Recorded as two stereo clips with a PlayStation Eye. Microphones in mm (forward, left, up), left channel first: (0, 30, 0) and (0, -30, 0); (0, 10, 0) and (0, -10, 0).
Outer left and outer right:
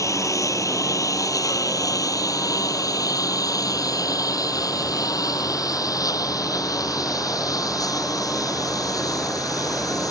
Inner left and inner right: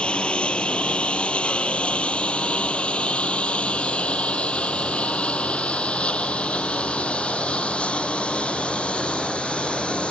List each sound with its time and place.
0.0 s a lawn mower: 60° left (ahead or behind); by 10.1 s 75° left (ahead or behind)